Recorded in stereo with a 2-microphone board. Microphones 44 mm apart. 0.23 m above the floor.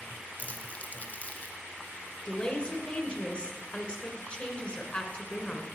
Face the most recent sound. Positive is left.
turn(degrees=30)  # may be behind; listen again after turning